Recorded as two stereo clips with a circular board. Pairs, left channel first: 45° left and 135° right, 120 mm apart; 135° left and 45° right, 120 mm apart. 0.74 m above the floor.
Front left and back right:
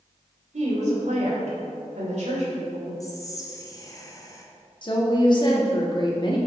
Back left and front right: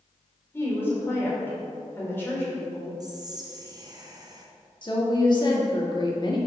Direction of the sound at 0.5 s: 155° right.